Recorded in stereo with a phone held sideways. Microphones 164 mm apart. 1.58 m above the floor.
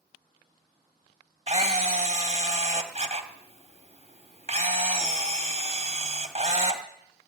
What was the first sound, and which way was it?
A camera shutter, 40° right (ahead or behind).